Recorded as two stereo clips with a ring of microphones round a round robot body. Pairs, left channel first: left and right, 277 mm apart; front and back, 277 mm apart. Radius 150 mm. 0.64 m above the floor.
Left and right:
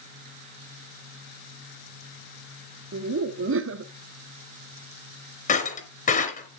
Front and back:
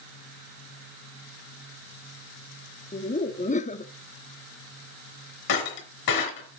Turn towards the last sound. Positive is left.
turn(degrees=30)